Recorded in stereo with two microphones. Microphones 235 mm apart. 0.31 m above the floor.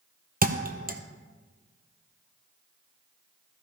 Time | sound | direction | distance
0.4 | a thud | 40° right (ahead or behind) | 1.1 m